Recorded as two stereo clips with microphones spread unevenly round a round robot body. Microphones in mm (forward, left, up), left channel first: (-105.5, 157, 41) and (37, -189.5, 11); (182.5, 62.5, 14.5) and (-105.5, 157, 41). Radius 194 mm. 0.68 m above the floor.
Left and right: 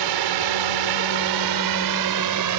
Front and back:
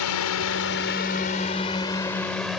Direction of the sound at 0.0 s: 55° right.